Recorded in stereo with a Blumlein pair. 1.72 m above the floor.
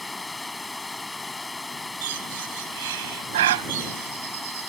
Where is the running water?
10° left.